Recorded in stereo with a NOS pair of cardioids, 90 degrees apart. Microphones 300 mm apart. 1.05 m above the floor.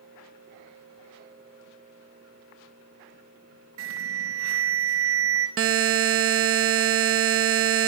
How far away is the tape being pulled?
I don't hear tape being pulled.